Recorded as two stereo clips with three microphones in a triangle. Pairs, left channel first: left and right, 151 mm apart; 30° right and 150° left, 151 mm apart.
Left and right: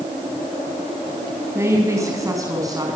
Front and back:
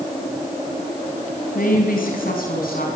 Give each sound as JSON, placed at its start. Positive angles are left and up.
{"t": 1.6, "sound": "a woman speaking", "azimuth_deg": -20, "distance_m": 4.5}